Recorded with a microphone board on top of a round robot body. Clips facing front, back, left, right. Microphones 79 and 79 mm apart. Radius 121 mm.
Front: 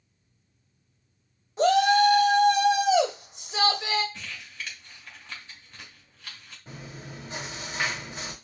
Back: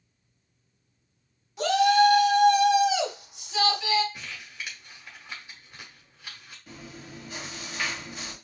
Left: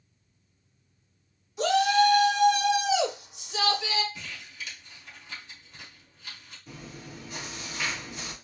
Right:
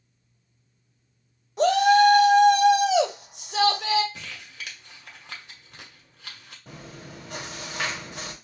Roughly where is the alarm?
No alarm in this recording.